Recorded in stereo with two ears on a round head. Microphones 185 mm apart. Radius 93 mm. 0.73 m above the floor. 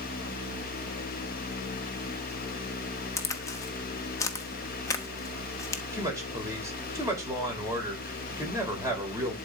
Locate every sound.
3.2 s a crack: 15° left (ahead or behind), 0.9 m
5.9 s a woman speaking: 15° right (ahead or behind), 3 m